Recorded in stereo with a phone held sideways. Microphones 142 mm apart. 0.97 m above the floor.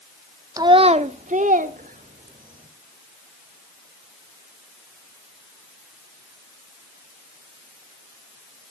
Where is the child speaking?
25° right (ahead or behind), 0.7 m; by 2.7 s 85° right, 2.5 m.